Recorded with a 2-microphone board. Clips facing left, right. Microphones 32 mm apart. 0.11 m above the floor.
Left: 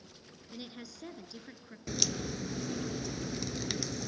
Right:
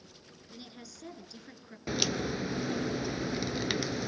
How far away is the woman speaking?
About 1.8 m.